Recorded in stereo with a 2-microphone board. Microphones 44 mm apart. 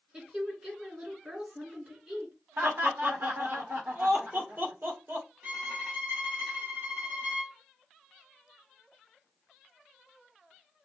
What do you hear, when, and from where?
0.1 s a woman speaking: 20° right (ahead or behind), 3.5 m
2.6 s laughter: 55° right (ahead or behind), 1.4 m
5.4 s a violin: 45° right (ahead or behind), 2 m